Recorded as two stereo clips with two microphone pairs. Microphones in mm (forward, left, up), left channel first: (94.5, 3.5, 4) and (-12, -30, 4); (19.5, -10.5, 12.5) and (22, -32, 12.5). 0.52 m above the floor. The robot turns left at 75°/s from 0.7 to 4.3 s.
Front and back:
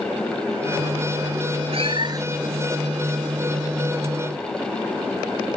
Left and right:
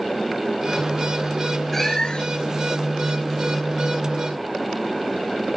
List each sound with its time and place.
1.7 s a cat meowing: 175° left; by 2.5 s 115° left